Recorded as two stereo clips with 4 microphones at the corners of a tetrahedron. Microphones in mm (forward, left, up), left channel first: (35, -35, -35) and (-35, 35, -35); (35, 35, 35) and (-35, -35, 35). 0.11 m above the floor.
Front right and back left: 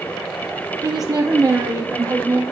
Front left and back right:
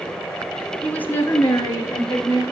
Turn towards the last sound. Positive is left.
turn(degrees=90)